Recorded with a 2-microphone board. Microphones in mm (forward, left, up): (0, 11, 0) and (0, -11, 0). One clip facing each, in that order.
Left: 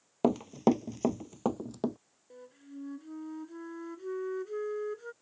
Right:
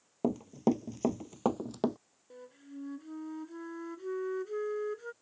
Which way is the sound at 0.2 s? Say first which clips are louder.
Left 4 dB; 55° left (ahead or behind).